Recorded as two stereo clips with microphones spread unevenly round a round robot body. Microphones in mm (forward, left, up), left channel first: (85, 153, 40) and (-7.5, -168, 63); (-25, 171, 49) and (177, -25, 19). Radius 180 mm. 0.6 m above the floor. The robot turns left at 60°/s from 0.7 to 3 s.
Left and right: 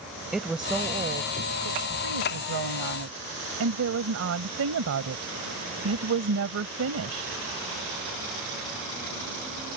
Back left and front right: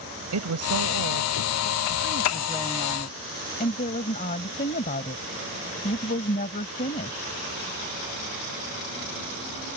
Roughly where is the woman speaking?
Ahead.